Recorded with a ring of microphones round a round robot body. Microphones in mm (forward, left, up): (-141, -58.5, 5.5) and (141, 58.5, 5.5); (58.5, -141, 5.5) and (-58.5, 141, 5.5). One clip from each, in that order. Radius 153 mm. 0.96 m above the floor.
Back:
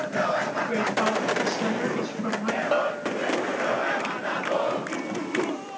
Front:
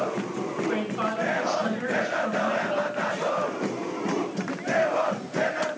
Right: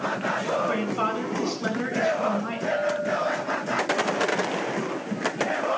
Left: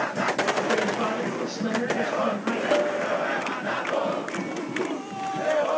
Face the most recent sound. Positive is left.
turn(degrees=150)